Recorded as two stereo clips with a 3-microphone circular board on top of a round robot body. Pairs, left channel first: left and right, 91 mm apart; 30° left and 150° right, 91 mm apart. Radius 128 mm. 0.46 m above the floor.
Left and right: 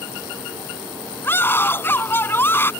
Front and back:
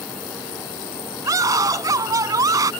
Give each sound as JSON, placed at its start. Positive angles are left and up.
{"t": 1.2, "sound": "a scream", "azimuth_deg": 155}